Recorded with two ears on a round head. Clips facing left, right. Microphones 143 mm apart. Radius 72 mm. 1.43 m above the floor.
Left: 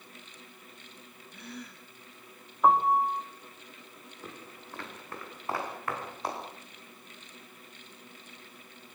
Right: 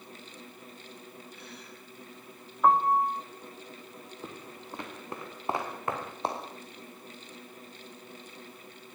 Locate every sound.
1.3 s a gasp: 45° left (ahead or behind), 8.5 m
2.6 s a piano: 5° left (ahead or behind), 2.5 m
4.2 s footsteps: 15° right (ahead or behind), 5.5 m; by 6.4 s 25° right (ahead or behind), 6.5 m